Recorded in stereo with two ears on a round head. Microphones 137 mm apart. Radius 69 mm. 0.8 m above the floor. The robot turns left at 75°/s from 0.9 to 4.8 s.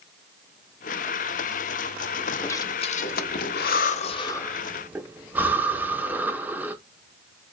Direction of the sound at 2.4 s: 15° left (ahead or behind).